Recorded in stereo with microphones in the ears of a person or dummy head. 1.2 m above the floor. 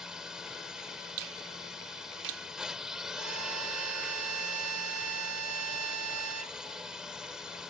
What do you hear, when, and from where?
0.0 s a drone: centre (ahead or behind)
1.2 s a finger snap: 75° right (ahead or behind)
3.2 s a violin: 85° right